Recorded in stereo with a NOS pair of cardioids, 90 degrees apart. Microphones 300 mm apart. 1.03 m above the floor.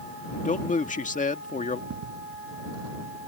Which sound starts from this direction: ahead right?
Footsteps, at 1.9 s.